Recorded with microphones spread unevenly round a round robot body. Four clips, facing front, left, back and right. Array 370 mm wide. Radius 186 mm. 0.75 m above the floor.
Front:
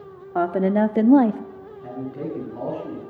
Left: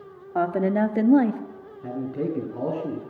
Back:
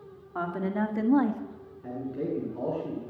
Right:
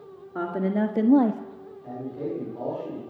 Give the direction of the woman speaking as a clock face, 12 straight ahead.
11 o'clock.